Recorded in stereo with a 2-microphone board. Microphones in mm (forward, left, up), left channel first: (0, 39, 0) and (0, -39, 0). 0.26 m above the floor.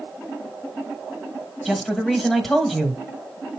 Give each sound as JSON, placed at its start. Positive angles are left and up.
{"t": 1.6, "sound": "a man speaking", "side_deg": 0, "distance_m": 1.5}